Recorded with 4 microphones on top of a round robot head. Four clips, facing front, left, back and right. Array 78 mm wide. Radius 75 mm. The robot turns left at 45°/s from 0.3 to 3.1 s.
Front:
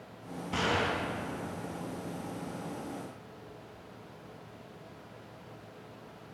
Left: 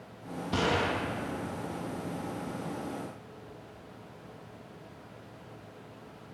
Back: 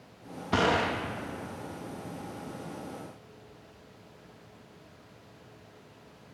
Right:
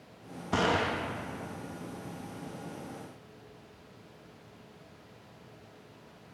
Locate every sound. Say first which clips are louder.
0.5 s a gunshot: right 1 dB, back 4 dB; 155° right, 0.8 m; by 0.9 s 175° right, 0.8 m